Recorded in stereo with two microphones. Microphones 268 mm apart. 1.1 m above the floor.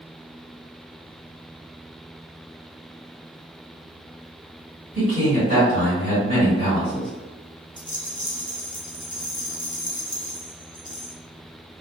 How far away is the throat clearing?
I don't hear throat clearing.